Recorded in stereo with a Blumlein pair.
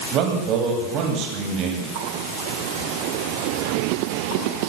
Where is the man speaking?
35° right, 10 m.